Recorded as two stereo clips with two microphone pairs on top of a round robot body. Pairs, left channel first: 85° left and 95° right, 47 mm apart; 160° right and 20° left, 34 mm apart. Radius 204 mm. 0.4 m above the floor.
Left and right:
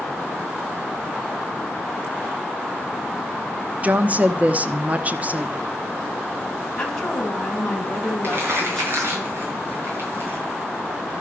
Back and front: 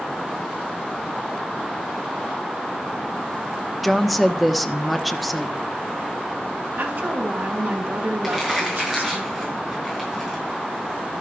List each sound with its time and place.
3.8 s a woman speaking: 65° right, 1.4 m
6.8 s a woman speaking: 10° left, 5 m
8.2 s crumpling: 60° right, 7 m